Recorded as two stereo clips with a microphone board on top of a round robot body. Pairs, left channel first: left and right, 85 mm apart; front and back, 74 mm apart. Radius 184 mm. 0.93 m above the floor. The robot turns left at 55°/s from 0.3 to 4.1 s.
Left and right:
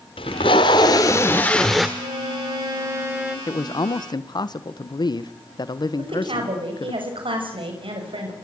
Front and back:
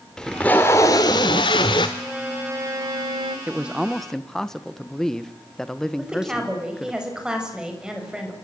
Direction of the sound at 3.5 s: 120° left.